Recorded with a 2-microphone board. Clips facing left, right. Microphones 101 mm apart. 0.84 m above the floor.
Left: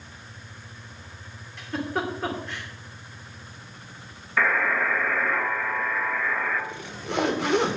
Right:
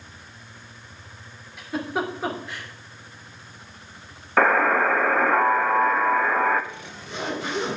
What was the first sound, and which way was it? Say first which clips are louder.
A giggle: right 1 dB; 5° right (ahead or behind).